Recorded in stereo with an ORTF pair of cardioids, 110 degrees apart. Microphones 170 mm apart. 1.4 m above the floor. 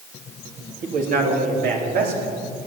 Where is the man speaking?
60° right, 3 m; by 2.3 s 65° right, 4.5 m.